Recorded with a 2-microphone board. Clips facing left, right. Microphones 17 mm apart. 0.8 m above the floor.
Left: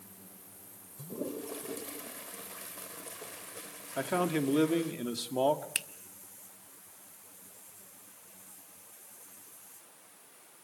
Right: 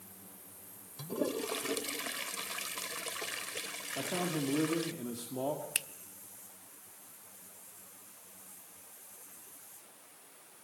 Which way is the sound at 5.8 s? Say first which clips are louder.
Left 1 dB; 10° left (ahead or behind).